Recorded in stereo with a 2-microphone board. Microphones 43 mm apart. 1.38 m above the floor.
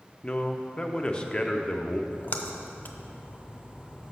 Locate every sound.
0.2 s a man speaking: 20° left (ahead or behind), 0.6 m
2.1 s a splash: 40° left (ahead or behind), 0.6 m